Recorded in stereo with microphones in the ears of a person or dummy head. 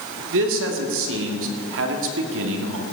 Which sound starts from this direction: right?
A man speaking, at 0.3 s.